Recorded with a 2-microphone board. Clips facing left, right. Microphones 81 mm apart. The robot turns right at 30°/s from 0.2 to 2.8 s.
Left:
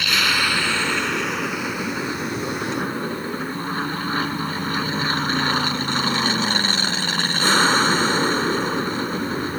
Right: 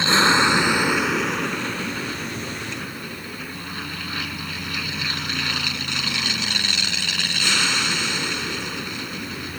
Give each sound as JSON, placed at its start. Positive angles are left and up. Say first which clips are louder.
{"t": 0.0, "sound": "an aircraft", "louder": "right 4 dB", "azimuth_deg": -30}